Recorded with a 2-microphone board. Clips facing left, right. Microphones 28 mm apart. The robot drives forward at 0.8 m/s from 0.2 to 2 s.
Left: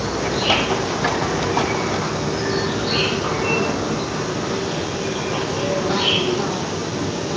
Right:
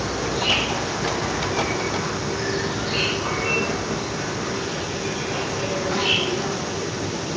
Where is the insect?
50° left (ahead or behind), 3 m; by 7.4 s 70° left (ahead or behind), 2.5 m.